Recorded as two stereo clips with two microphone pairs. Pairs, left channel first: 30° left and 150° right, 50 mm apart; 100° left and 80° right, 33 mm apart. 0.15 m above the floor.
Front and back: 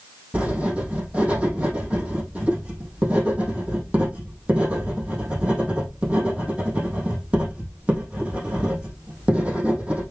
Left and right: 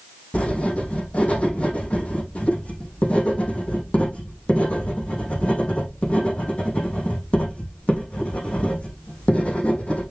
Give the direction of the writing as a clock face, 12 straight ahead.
7 o'clock.